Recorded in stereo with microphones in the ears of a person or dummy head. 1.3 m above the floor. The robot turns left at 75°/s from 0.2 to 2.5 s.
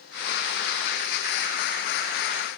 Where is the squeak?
I don't hear a squeak.